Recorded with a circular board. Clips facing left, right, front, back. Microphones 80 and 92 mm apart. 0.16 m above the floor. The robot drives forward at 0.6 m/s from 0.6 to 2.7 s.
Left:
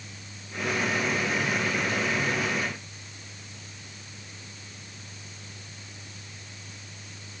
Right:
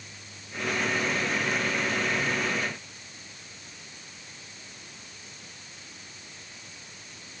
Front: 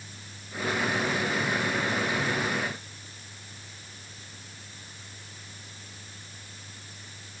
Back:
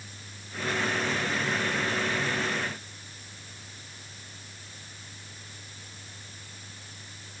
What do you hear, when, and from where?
Only background noise.